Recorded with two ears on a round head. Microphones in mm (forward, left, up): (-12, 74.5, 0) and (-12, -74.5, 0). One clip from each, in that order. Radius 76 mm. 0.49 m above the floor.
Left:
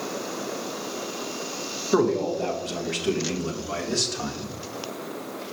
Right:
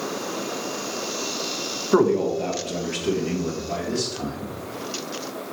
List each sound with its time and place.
1.9 s a man speaking: 10° right (ahead or behind), 1.4 m; by 4.5 s 45° left (ahead or behind), 1.9 m